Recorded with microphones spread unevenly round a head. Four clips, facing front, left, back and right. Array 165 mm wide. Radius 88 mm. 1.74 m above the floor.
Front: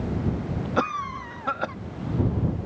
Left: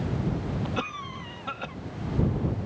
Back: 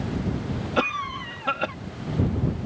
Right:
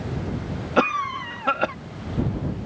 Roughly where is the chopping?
No chopping in this recording.